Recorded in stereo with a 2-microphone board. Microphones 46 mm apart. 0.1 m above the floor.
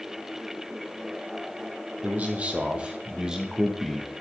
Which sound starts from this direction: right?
A man speaking, at 2.0 s.